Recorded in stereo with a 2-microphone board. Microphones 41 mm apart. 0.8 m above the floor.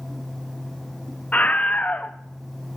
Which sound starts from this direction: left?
A scream, at 1.3 s.